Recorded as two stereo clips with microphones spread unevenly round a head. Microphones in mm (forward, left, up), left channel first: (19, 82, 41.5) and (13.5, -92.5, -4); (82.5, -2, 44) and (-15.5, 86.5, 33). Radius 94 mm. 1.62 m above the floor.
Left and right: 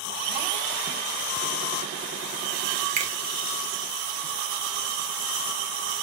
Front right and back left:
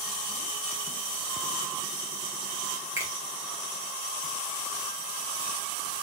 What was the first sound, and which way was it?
A finger snap, 145° right.